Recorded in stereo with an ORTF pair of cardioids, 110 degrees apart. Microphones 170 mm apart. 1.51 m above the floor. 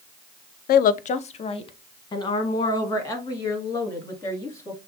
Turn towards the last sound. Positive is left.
turn(degrees=15)